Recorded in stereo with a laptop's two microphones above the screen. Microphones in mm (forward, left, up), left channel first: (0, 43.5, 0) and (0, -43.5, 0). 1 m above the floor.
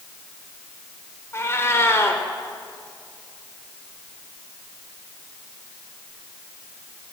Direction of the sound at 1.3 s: 30° left (ahead or behind).